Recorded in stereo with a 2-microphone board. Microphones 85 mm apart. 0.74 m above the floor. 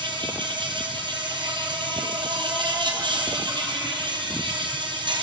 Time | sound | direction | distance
0.0 | an insect | 65° right (ahead or behind) | 5 m